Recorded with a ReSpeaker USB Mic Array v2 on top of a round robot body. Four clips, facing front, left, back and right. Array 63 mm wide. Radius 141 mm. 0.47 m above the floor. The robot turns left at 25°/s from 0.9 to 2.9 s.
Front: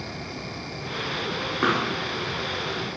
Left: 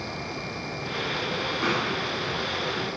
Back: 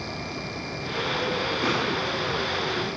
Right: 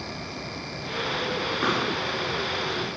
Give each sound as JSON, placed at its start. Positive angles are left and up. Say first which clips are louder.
{"t": 1.6, "sound": "a pop", "louder": "right 1 dB, front 5 dB", "azimuth_deg": -5, "distance_m": 6.5}